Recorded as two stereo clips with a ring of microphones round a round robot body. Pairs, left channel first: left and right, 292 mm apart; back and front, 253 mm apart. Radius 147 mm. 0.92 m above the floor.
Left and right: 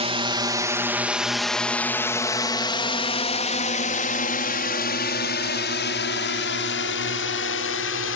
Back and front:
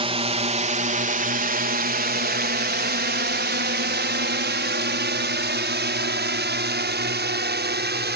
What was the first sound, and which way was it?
A drone, 40° right.